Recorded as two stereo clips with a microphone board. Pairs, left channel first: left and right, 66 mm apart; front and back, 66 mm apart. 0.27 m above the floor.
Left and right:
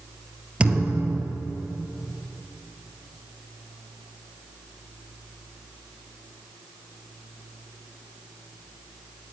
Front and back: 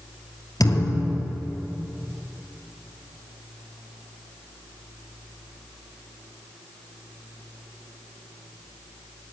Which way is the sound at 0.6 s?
15° right.